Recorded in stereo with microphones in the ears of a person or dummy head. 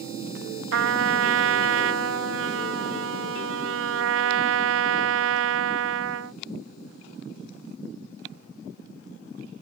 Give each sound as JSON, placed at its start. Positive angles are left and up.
{"t": 0.7, "sound": "a trumpet", "side_deg": -75}